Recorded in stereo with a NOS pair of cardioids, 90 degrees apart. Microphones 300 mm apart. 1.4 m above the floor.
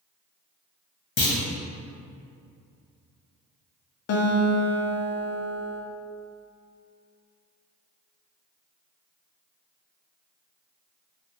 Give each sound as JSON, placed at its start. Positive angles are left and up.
{"t": 1.2, "sound": "a clunk", "azimuth_deg": 45, "distance_m": 1.0}
{"t": 4.1, "sound": "a guitar", "azimuth_deg": 55, "distance_m": 0.6}